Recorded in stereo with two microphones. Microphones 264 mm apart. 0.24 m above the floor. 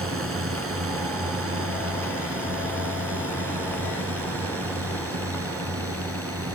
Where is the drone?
55° right (ahead or behind); by 6.6 s 60° right (ahead or behind).